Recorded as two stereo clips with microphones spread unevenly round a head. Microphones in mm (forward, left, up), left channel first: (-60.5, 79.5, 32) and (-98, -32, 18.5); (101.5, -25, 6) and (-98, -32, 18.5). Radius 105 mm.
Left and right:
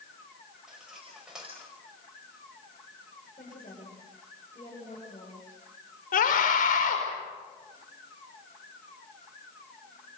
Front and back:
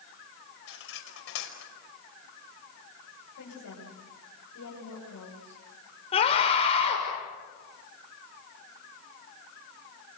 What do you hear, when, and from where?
0.7 s cutlery clinking: 20° right, 5 m
3.4 s a woman speaking: 15° left, 8.5 m
6.1 s a scream: 70° left, 6 m